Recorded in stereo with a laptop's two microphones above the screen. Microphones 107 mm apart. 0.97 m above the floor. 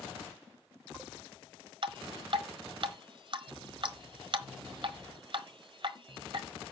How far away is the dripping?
About 1.0 m.